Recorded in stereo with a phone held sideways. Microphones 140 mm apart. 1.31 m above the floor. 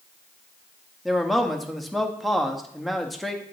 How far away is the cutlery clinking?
I don't hear cutlery clinking.